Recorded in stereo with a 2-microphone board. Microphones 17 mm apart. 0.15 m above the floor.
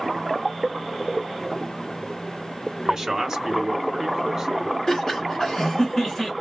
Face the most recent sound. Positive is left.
turn(degrees=35)  # may be behind; listen again after turning